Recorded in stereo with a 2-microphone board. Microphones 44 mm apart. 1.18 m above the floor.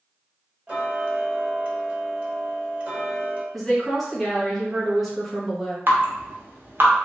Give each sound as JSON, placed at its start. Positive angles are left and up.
{"t": 0.7, "sound": "ticking", "side_deg": -25, "distance_m": 1.0}
{"t": 3.5, "sound": "a woman speaking", "side_deg": 5, "distance_m": 1.2}
{"t": 5.9, "sound": "dripping", "side_deg": -50, "distance_m": 0.8}